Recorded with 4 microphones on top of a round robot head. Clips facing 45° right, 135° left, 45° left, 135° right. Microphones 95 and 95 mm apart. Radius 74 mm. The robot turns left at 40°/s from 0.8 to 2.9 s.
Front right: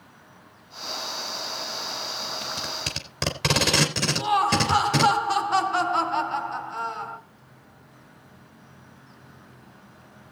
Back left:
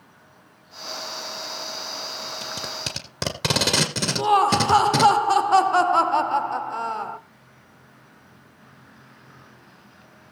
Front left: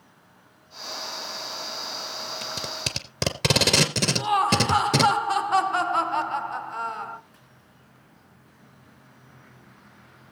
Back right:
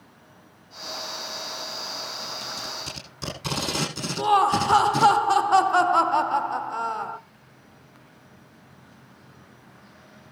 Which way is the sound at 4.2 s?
170° left.